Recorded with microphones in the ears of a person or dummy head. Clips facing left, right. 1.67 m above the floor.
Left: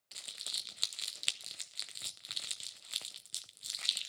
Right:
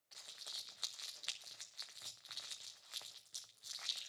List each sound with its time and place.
0.1 s crumpling: 35° left (ahead or behind), 0.7 m